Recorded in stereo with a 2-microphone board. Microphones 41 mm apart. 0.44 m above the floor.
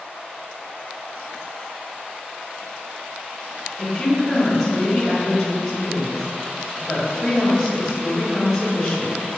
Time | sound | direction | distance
3.8 | a woman speaking | 10° left (ahead or behind) | 1.9 m